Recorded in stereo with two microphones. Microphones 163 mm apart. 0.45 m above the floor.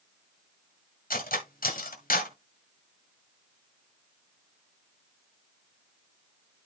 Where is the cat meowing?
No cat meowing in this recording.